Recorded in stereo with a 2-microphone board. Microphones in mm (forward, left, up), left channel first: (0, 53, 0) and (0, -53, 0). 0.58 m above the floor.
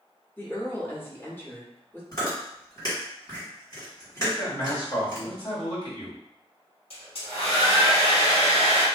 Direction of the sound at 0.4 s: 20° left (ahead or behind).